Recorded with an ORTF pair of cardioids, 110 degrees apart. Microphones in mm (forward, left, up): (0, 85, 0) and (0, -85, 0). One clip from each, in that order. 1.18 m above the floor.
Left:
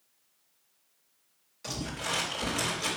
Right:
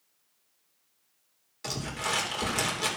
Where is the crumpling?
40° right, 3 m.